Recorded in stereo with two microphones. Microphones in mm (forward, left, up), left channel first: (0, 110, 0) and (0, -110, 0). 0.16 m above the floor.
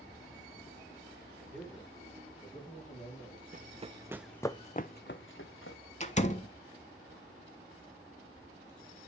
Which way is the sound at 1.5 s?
5° left (ahead or behind).